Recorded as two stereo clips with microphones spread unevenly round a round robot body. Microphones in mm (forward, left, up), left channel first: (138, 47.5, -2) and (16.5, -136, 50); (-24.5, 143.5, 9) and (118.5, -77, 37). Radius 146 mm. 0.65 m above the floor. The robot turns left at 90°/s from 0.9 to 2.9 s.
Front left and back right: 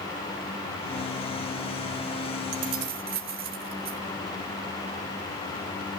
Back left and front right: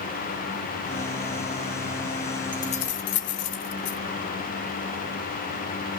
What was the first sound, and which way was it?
Keys jangling, 150° right.